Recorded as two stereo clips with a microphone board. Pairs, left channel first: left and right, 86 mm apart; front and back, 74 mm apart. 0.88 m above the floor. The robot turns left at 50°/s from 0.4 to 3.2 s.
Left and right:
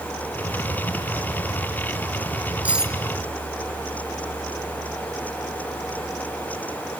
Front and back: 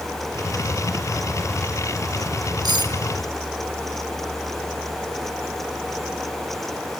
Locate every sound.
2.6 s cutlery clinking: 165° right, 1.5 m; by 2.9 s straight behind, 1.5 m